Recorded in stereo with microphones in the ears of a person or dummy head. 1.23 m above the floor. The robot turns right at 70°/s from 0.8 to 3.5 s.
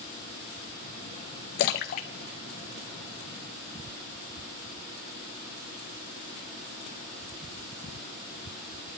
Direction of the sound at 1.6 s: 40° left (ahead or behind).